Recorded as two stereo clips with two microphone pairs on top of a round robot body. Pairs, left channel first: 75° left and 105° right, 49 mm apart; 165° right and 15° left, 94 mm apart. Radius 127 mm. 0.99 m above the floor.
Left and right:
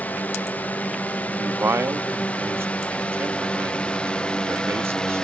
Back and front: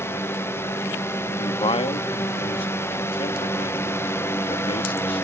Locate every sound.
0.0 s a drone: 130° left; by 5.2 s 145° left
1.3 s a man speaking: 135° right